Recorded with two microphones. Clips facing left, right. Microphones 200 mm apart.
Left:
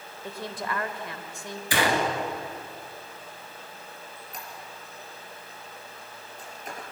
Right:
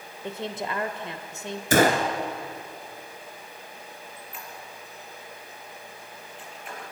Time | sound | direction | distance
0.2 | a woman speaking | 25° right (ahead or behind) | 1.4 m
1.7 | a gunshot | 45° right (ahead or behind) | 2 m
4.2 | a squeak | 40° left (ahead or behind) | 4.5 m